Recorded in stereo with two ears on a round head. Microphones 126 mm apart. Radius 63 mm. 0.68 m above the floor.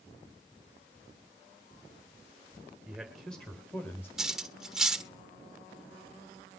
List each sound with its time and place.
2.9 s a man speaking: centre (ahead or behind), 3.5 m; by 4.1 s 15° left (ahead or behind), 3.5 m
4.2 s cutlery clinking: 5° right (ahead or behind), 1.1 m